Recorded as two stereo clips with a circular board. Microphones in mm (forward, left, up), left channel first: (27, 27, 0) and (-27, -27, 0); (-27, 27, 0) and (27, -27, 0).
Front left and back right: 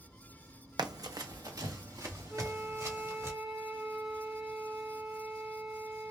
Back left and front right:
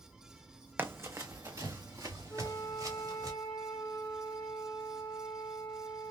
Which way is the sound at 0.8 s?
105° right.